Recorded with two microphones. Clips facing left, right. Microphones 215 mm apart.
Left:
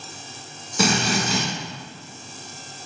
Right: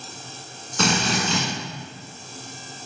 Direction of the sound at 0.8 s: 10° left (ahead or behind).